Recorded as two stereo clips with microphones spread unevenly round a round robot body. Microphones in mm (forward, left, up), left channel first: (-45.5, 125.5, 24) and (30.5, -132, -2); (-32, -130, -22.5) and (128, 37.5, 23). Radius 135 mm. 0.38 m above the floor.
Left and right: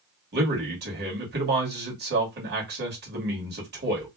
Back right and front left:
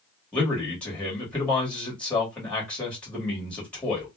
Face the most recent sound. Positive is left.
turn(degrees=-65)